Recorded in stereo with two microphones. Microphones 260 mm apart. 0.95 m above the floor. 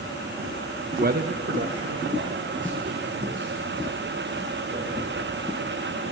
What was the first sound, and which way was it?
A man speaking, 35° right (ahead or behind).